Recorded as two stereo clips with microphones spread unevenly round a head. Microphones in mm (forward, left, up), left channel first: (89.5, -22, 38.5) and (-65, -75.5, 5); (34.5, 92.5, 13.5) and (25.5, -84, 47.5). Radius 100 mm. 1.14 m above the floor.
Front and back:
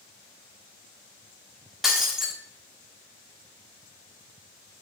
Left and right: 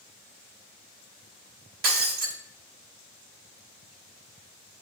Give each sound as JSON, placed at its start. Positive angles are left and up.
{"t": 1.8, "sound": "breaking glass", "azimuth_deg": -70, "distance_m": 1.2}